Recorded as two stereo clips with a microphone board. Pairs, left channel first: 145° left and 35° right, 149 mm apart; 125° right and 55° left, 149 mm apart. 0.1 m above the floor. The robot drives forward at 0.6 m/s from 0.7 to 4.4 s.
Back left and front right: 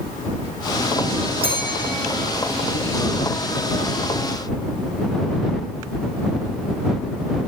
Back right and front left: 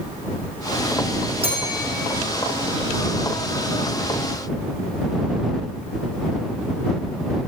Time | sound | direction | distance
1.4 | a bell | 10° left | 3 m